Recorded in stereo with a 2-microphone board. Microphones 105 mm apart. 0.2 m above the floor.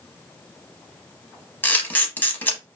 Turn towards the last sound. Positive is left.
turn(degrees=20)  # may be behind; listen again after turning